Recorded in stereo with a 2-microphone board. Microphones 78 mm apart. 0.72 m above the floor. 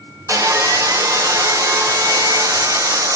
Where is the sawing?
40° right (ahead or behind), 0.5 m.